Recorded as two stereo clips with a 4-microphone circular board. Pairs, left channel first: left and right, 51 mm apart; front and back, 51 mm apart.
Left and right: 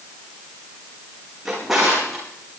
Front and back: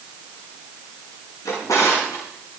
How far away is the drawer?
About 8 m.